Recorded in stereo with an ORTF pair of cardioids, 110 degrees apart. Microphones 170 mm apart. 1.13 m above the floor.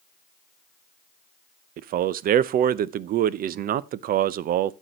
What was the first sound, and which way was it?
A man speaking, 60° right.